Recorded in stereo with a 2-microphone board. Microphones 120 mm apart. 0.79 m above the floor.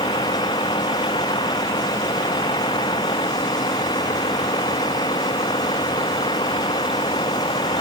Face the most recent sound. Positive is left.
turn(degrees=50)  # may be behind; listen again after turning